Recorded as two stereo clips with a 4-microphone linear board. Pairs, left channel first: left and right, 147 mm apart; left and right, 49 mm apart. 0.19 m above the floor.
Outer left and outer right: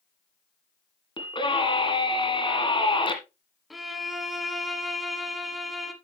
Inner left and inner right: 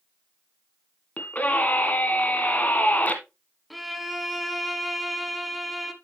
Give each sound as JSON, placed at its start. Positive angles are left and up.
{"t": 1.2, "sound": "a scream", "side_deg": 35, "distance_m": 1.8}
{"t": 3.7, "sound": "a violin", "side_deg": 0, "distance_m": 1.0}